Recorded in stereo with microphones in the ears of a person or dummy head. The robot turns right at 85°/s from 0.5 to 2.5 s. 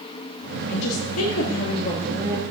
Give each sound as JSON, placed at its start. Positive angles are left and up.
{"t": 0.7, "sound": "a woman speaking", "azimuth_deg": 55, "distance_m": 1.7}